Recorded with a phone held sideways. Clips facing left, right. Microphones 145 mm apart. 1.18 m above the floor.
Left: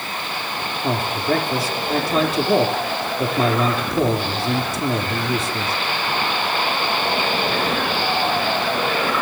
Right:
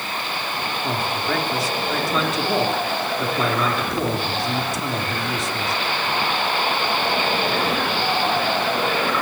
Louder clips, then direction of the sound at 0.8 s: Left 5 dB; 35° left (ahead or behind).